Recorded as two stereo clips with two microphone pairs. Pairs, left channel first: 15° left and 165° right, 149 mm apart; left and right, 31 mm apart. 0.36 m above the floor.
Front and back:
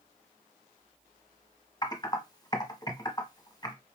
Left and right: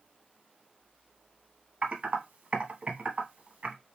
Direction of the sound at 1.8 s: 45° right.